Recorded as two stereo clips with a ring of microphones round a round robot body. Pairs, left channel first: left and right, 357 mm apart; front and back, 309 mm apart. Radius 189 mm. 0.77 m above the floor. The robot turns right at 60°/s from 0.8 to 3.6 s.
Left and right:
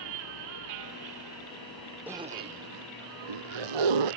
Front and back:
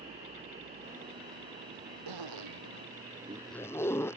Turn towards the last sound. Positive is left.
turn(degrees=-85)